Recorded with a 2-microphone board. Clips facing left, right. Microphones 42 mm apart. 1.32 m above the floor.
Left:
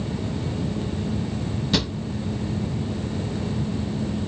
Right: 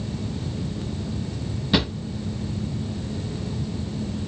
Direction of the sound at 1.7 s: 15° right (ahead or behind).